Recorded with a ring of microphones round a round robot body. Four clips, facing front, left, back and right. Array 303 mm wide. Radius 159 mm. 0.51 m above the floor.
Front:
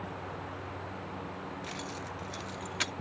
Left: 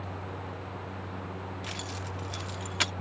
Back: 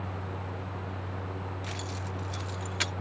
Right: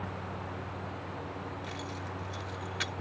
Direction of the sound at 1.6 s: 95° left.